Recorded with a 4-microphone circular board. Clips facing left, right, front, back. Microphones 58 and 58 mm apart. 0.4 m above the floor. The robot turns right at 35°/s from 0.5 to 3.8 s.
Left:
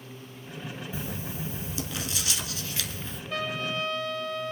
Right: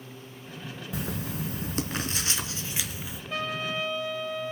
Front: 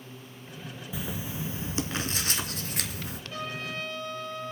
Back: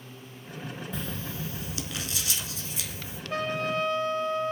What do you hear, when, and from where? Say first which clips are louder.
0.9 s writing: right 6 dB, front 4 dB; 85° right, 1.2 m; by 3.2 s 5° right, 1.2 m
3.3 s a trumpet: even, back 8 dB; 170° right, 2.5 m; by 4.5 s 155° right, 2.5 m